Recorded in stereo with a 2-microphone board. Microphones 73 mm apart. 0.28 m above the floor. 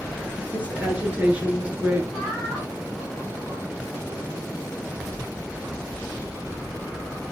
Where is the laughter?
15° left (ahead or behind), 8 m.